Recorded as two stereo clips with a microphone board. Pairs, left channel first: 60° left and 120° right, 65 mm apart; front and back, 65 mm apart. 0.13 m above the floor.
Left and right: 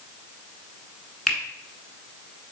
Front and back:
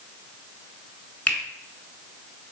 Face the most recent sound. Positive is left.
turn(degrees=0)